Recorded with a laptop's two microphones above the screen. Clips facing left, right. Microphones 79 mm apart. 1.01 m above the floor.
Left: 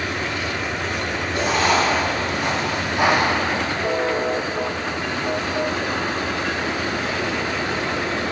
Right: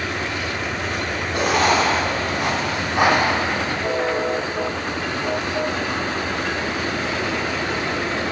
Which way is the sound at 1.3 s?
75° right (ahead or behind).